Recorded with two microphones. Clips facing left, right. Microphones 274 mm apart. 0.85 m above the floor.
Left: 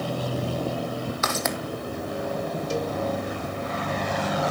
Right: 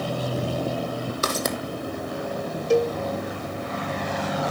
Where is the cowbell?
65° right (ahead or behind), 0.7 m.